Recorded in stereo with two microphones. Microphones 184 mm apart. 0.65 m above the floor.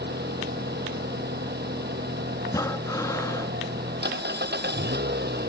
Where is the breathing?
15° left (ahead or behind).